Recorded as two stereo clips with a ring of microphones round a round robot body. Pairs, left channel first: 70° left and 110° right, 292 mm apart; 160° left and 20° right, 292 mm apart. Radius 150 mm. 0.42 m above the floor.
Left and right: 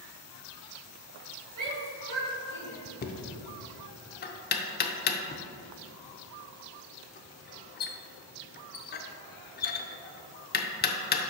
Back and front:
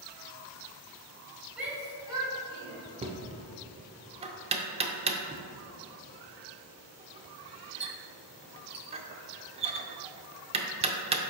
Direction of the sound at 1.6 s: 110° right.